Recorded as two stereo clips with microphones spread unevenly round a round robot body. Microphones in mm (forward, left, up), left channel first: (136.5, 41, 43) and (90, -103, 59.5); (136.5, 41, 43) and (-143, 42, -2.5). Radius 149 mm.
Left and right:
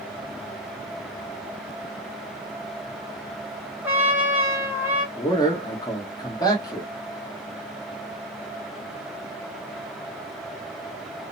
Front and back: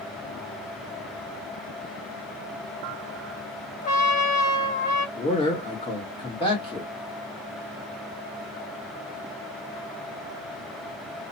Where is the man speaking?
75° left, 1.3 m.